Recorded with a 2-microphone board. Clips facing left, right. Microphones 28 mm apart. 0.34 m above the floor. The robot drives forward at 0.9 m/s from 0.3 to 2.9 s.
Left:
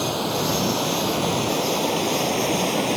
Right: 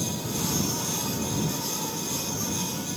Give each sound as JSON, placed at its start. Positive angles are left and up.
{"t": 0.0, "sound": "running water", "side_deg": 50}